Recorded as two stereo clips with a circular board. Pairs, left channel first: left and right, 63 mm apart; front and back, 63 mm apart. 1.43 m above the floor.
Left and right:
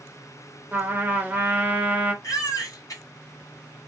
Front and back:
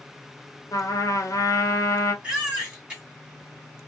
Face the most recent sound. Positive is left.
turn(degrees=105)